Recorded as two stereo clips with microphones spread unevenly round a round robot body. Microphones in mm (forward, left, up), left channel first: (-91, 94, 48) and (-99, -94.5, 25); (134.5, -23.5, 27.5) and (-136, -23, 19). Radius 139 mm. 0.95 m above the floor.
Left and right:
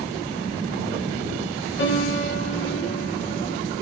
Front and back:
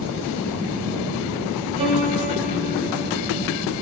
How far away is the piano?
About 7 m.